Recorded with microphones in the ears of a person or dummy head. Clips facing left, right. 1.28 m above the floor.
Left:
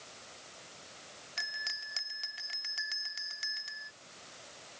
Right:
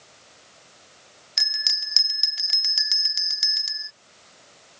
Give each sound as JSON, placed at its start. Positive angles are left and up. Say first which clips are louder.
{"t": 1.4, "sound": "a bell", "louder": "right 6 dB", "side_deg": -65}